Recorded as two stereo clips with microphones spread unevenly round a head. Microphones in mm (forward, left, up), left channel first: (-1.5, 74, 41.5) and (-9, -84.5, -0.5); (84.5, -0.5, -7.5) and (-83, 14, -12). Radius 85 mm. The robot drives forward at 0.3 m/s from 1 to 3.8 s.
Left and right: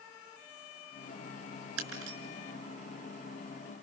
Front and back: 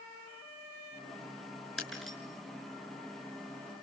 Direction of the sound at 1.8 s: 90° right.